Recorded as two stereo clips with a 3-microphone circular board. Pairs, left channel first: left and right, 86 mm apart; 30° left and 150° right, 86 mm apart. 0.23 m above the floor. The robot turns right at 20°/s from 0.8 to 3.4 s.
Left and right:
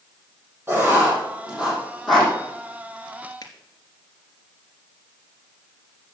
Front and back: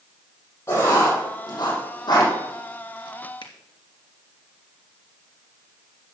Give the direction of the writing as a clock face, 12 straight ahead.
1 o'clock.